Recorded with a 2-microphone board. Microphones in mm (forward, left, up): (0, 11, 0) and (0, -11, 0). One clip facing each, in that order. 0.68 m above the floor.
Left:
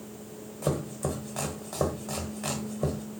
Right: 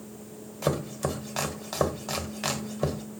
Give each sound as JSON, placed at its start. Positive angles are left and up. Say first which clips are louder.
{"t": 0.6, "sound": "chopping", "louder": "right 2 dB", "side_deg": -60, "distance_m": 1.1}